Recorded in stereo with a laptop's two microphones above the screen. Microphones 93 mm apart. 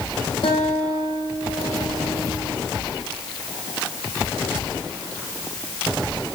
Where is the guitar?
65° left (ahead or behind), 5 m.